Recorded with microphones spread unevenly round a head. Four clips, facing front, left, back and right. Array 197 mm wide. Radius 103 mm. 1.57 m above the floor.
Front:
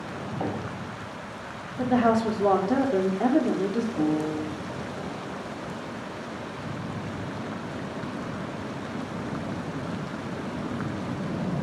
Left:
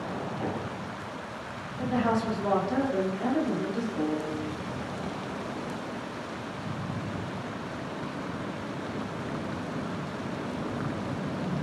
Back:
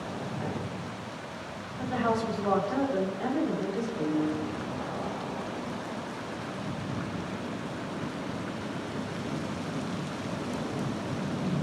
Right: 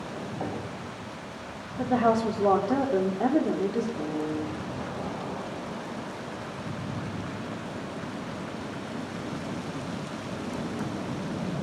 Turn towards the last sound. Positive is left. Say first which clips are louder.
# left 1 dB, front 3 dB
turn(degrees=10)